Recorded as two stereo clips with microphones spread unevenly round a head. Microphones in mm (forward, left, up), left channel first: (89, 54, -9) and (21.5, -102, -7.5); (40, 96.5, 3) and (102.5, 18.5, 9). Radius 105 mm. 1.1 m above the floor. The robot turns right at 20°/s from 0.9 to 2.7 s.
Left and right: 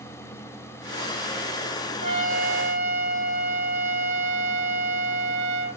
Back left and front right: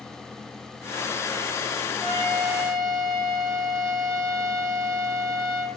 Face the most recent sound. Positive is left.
turn(degrees=-70)